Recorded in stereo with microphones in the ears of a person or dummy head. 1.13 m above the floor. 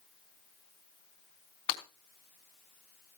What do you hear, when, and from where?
1.7 s breaking glass: 40° left (ahead or behind), 3.5 m